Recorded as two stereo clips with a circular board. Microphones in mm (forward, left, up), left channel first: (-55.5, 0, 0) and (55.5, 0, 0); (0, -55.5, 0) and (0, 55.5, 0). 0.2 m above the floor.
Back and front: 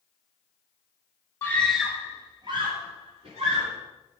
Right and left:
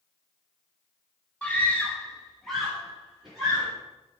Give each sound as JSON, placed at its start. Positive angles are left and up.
{"t": 1.4, "sound": "a scream", "azimuth_deg": -150, "distance_m": 1.4}